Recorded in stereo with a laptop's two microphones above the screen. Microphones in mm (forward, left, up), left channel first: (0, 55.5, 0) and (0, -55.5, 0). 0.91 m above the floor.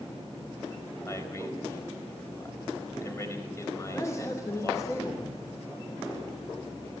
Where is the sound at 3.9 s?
30° left (ahead or behind), 2.5 m.